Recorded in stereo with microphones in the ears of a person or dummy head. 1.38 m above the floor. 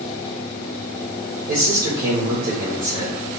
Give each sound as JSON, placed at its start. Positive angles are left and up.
{"t": 1.5, "sound": "a man speaking", "side_deg": -50, "distance_m": 1.2}